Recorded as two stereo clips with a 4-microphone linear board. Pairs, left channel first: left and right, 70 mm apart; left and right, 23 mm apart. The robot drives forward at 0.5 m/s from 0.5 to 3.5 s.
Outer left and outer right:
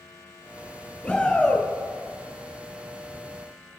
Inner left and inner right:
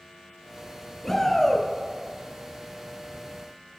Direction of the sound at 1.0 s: 15° left (ahead or behind).